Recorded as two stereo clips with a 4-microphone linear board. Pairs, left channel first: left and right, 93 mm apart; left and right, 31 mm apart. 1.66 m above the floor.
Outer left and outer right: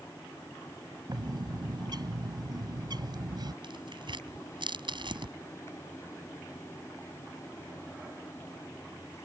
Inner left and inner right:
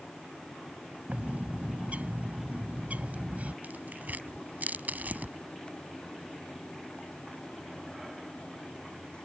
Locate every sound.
1.1 s a bird: 50° right (ahead or behind)
3.6 s tearing paper: 60° right (ahead or behind)